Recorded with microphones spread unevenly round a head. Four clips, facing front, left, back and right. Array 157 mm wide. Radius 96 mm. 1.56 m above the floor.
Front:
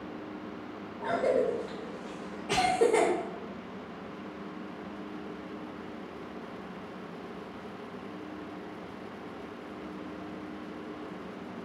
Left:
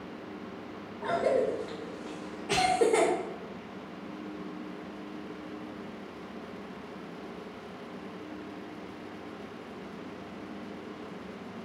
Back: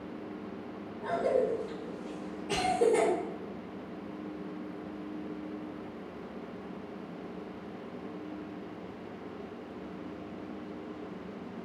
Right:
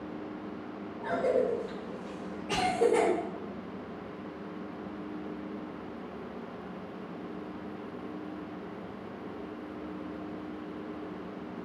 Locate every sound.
1.0 s a cough: 25° left, 0.7 m